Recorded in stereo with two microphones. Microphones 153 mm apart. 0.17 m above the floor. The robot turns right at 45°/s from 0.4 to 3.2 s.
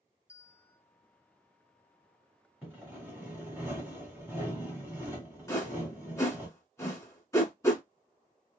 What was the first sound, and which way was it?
A bell, 50° left (ahead or behind).